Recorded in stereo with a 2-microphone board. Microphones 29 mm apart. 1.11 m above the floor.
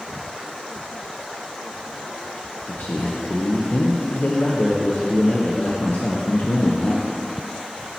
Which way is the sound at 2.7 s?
65° left (ahead or behind).